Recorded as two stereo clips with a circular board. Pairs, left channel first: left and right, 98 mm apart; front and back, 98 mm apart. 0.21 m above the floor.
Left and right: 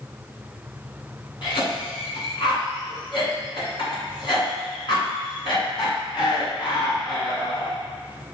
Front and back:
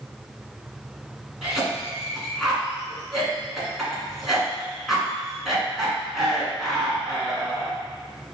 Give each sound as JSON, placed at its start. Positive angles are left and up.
{"t": 1.4, "sound": "a cough", "azimuth_deg": 90, "distance_m": 1.8}